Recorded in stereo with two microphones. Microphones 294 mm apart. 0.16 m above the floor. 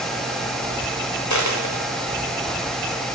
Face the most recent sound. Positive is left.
turn(degrees=70)  # may be behind; listen again after turning